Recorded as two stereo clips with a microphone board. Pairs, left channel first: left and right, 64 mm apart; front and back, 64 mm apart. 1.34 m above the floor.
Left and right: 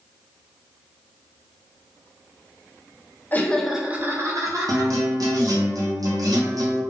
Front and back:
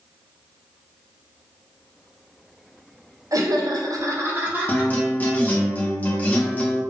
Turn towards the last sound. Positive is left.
turn(degrees=-65)